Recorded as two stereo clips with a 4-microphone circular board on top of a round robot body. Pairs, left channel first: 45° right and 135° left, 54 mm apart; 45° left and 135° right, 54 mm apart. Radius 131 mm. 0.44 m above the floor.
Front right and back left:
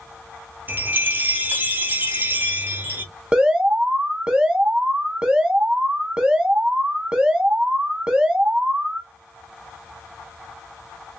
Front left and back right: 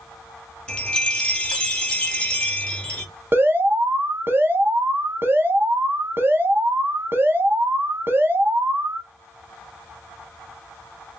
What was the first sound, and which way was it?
A chime, 105° left.